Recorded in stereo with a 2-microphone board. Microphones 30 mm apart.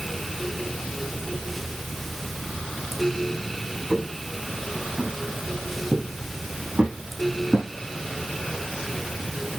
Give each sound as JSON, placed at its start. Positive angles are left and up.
{"t": 3.9, "sound": "footsteps", "side_deg": -40, "distance_m": 6.5}